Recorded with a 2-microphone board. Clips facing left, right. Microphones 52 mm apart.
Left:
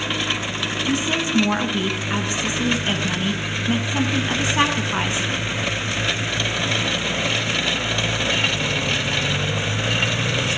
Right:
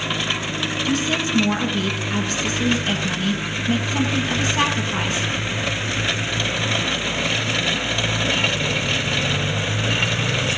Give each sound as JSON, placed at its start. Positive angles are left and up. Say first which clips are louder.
{"t": 0.8, "sound": "a woman speaking", "louder": "even", "side_deg": 20, "distance_m": 1.2}